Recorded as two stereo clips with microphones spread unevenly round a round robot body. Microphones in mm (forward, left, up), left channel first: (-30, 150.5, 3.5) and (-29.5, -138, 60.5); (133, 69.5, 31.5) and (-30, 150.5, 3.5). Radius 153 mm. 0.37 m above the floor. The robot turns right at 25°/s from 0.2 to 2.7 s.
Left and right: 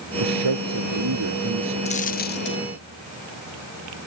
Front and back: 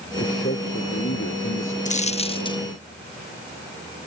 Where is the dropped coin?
20° left; by 2.6 s 40° left.